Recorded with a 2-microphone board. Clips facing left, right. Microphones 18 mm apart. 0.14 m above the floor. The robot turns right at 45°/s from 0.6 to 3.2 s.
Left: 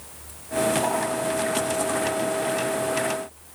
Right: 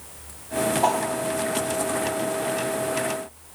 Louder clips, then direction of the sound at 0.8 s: Right 3 dB; 30° right (ahead or behind).